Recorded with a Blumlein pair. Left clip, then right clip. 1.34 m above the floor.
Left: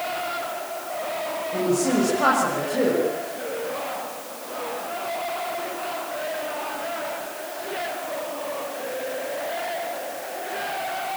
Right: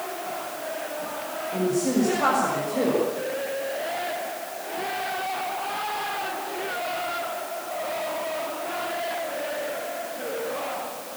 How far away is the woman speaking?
About 6.5 m.